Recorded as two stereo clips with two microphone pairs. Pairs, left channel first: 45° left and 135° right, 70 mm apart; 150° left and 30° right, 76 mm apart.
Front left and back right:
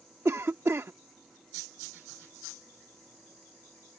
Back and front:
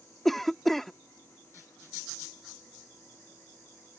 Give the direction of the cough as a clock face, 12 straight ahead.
4 o'clock.